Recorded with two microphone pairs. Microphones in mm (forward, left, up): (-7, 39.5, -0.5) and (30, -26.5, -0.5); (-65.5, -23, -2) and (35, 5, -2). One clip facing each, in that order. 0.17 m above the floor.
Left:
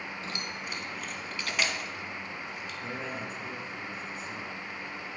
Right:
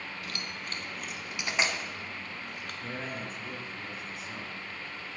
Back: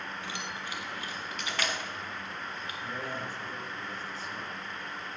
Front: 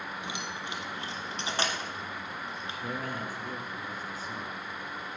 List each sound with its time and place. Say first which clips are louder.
0.2 s keys jangling: left 2 dB, front 1 dB; 80° left, 1.1 m; by 2.7 s 40° right, 1.5 m
2.8 s a man speaking: left 1 dB, front 2 dB; 25° left, 1.8 m